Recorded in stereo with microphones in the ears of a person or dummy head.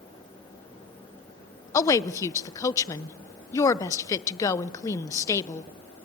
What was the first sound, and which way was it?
A woman speaking, 20° left (ahead or behind).